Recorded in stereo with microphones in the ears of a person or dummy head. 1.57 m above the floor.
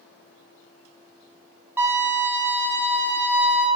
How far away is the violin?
About 0.8 m.